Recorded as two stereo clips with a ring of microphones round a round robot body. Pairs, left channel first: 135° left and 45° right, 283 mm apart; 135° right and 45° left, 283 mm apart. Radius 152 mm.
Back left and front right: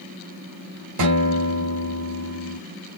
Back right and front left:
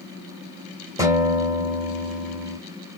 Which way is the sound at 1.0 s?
35° right.